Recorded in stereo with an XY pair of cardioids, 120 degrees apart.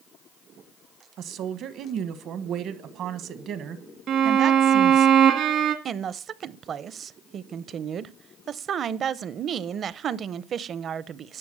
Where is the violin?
65° right, 1.4 m.